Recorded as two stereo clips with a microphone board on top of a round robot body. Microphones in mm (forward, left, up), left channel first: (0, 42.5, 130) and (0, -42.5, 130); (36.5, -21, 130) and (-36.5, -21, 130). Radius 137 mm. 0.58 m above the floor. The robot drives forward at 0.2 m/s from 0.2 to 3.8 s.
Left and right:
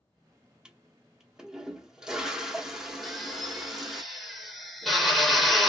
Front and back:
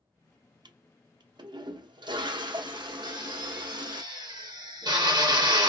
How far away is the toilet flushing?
About 0.6 m.